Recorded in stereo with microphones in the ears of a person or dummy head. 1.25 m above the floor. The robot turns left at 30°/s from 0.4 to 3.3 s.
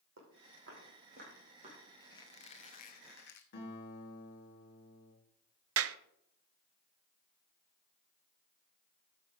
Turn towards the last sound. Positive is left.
turn(degrees=-75)  # may be behind; listen again after turning